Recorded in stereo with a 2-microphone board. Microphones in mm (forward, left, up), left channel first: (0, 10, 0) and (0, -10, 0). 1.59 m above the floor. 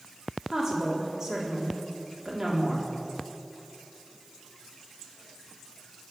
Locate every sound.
0.5 s a woman speaking: 35° right (ahead or behind), 4 m